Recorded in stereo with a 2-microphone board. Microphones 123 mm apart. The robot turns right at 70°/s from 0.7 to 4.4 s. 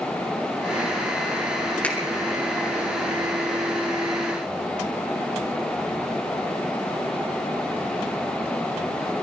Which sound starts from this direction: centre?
A finger snap, at 1.8 s.